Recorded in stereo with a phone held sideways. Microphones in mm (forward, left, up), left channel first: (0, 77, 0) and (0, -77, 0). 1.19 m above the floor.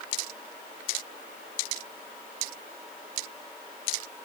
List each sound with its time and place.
Only background noise.